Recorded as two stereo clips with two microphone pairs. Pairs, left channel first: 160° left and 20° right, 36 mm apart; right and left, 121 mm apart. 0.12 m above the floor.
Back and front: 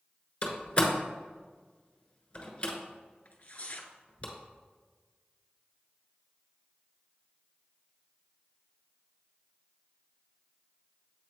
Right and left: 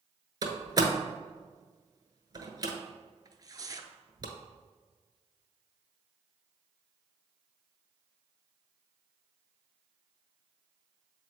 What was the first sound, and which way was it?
A door slam, 125° left.